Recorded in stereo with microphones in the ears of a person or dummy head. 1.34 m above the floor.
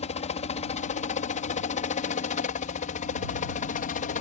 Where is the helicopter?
35° left (ahead or behind); by 4.2 s 40° left (ahead or behind).